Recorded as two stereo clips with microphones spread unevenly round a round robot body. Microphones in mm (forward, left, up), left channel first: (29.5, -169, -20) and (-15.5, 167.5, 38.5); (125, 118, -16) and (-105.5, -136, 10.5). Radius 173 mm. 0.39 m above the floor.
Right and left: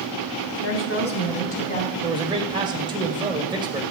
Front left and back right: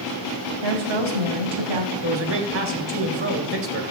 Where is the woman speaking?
125° right, 2.5 m; by 1.9 s 155° right, 3 m.